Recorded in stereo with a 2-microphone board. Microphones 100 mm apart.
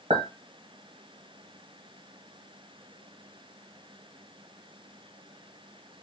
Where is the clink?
75° right (ahead or behind), 1.3 m.